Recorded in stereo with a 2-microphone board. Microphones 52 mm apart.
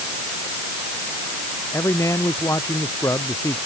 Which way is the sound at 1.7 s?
70° left (ahead or behind).